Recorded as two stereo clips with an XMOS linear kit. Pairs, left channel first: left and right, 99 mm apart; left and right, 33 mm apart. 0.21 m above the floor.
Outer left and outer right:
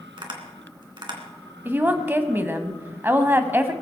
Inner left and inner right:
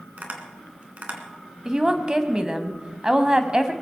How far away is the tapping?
About 2.5 m.